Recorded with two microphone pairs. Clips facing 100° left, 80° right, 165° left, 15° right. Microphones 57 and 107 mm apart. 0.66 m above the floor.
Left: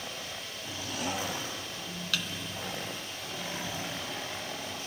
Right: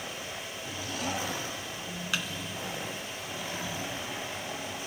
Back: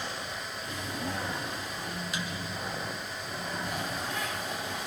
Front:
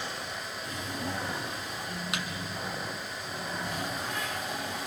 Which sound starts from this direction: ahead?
A thud, at 2.1 s.